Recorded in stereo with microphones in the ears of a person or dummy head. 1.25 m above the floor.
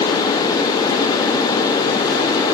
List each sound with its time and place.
Only background noise.